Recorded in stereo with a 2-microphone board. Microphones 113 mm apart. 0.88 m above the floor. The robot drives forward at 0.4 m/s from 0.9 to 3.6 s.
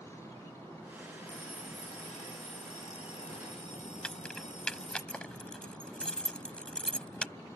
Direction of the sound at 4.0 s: 10° left (ahead or behind).